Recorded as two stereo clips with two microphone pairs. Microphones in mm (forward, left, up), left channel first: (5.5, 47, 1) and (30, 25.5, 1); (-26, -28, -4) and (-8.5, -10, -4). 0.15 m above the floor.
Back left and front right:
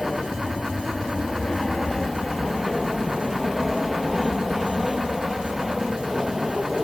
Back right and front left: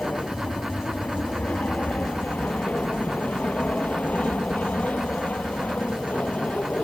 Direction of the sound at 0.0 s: 145° right.